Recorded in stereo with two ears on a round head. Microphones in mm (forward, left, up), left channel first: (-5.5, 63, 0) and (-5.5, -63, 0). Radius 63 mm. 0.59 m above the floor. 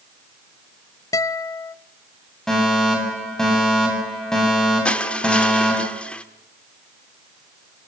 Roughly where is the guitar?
Left.